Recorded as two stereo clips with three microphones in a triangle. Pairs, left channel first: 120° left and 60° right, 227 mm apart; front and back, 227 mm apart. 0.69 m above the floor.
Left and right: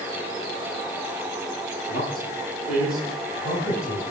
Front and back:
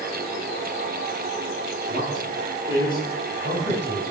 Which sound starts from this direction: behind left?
A man speaking, at 1.9 s.